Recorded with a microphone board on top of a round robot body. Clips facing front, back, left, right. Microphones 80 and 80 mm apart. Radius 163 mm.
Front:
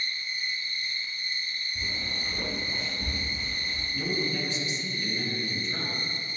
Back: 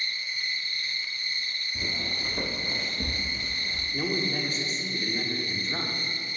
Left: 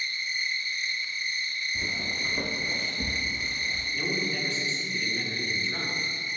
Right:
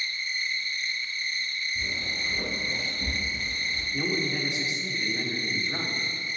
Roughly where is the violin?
No violin in this recording.